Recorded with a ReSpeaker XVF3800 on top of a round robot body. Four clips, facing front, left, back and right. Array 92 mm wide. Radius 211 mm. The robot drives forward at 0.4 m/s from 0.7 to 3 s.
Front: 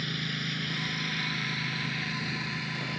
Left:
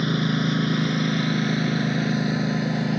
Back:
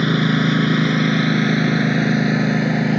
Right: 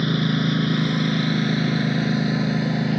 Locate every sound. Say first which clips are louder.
0.0 s a lawn mower: right 1 dB, back 18 dB; 170° left; by 3.0 s 175° left